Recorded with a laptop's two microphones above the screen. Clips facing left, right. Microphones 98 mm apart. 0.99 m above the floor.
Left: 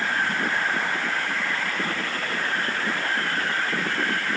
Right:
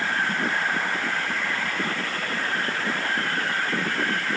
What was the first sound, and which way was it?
Only background noise.